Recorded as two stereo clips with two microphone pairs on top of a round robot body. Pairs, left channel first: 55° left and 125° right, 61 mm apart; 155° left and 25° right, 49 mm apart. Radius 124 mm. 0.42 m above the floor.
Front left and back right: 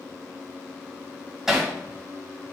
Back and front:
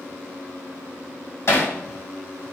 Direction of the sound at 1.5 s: 150° left.